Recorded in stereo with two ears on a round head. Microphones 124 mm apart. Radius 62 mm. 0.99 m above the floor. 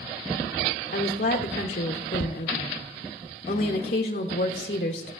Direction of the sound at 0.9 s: 70° left (ahead or behind).